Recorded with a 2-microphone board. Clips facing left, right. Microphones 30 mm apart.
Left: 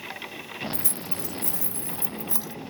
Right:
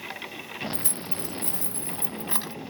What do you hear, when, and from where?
0.7 s keys jangling: 45° right (ahead or behind)